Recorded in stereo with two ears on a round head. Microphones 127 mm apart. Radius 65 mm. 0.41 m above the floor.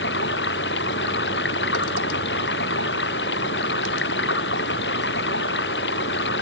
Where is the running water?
75° left (ahead or behind).